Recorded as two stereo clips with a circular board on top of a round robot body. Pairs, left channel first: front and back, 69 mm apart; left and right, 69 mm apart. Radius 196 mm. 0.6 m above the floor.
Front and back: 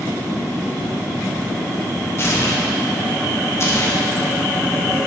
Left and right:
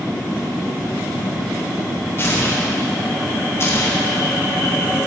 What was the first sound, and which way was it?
Tearing paper, 40° left.